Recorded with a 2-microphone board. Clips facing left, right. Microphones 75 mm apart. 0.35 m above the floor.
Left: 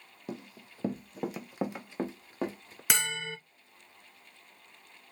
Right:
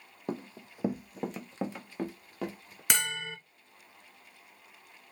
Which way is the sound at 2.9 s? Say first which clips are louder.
Even; centre (ahead or behind).